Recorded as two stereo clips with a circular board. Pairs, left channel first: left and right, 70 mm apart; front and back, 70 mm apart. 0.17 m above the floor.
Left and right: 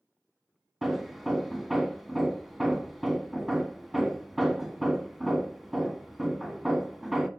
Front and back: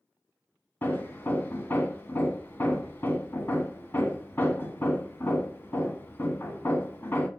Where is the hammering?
5° right, 1.2 m.